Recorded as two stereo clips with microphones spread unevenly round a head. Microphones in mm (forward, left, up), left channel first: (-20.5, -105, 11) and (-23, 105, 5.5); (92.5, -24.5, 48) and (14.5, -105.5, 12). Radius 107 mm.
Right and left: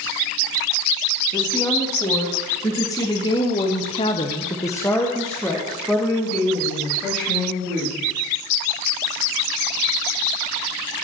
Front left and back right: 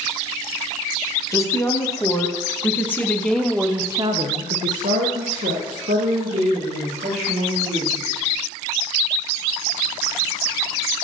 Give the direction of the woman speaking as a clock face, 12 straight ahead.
12 o'clock.